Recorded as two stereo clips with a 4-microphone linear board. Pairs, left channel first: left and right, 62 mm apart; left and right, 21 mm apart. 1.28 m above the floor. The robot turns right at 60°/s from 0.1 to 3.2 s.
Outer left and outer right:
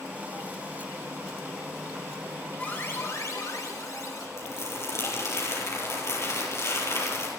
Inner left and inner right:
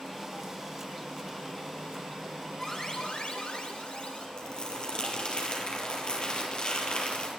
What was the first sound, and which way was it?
An alarm, 25° left.